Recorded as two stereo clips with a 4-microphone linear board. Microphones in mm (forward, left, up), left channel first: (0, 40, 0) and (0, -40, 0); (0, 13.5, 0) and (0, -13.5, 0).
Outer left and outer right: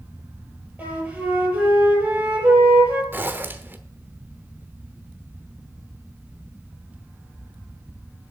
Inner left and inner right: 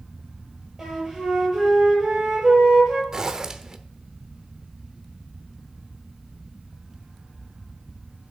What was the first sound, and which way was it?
A flute, 20° right (ahead or behind).